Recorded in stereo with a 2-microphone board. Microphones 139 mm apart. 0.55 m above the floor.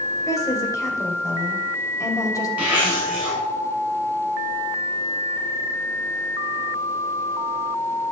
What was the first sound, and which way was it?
A woman speaking, 25° left (ahead or behind).